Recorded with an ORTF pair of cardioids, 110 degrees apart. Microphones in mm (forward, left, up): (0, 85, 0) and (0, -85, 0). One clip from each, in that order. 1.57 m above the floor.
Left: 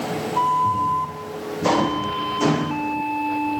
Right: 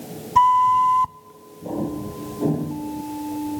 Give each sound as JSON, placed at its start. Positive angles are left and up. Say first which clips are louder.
{"t": 0.3, "sound": "a flute", "louder": "right 5 dB", "azimuth_deg": -50, "distance_m": 0.6}